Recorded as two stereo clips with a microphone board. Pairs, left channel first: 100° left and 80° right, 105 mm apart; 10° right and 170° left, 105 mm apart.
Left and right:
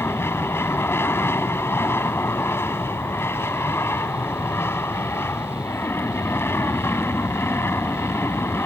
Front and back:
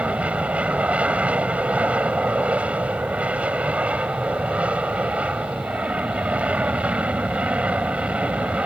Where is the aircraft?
115° left.